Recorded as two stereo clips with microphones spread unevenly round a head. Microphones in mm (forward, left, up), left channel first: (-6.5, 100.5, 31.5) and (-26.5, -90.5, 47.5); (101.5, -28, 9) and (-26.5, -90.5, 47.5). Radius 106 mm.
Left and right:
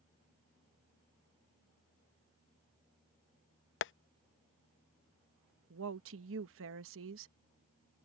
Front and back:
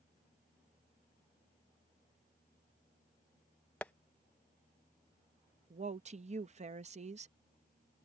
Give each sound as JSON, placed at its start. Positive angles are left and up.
{"t": 3.8, "sound": "tapping", "azimuth_deg": 115}
{"t": 5.7, "sound": "a woman speaking", "azimuth_deg": -115}